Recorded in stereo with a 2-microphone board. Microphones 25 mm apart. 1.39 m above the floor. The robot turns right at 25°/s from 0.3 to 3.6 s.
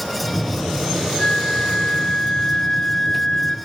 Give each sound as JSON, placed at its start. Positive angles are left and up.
{"t": 1.2, "sound": "a flute", "azimuth_deg": 75, "distance_m": 1.1}